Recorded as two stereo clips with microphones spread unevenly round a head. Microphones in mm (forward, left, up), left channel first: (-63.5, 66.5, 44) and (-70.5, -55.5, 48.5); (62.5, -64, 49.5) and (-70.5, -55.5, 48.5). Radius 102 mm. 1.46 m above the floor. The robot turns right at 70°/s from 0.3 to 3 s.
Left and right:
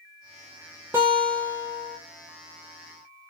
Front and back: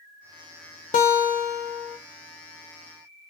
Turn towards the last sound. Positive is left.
turn(degrees=125)